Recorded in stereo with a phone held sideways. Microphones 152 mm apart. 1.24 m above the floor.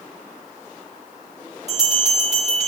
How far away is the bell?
About 2.5 m.